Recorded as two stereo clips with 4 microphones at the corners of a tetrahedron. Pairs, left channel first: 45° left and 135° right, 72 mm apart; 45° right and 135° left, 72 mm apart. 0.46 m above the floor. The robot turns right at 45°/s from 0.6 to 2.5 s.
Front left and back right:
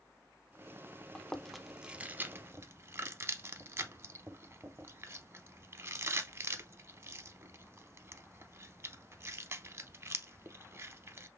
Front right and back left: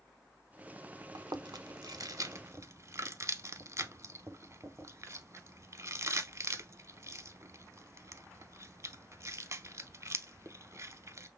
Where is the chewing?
115° left, 0.5 m; by 11.3 s straight behind, 0.5 m.